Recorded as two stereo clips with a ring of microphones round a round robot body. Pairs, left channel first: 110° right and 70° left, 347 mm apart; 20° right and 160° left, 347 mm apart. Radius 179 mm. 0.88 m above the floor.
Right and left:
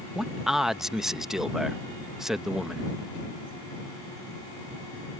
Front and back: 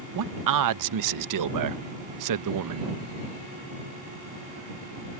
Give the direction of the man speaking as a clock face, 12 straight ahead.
7 o'clock.